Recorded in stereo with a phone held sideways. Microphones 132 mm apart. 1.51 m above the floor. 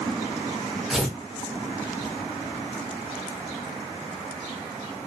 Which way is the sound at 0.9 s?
5° right (ahead or behind).